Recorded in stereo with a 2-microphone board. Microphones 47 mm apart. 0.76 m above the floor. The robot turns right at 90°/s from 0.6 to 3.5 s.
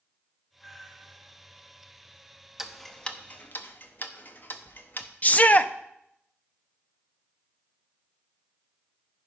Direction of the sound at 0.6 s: 170° left.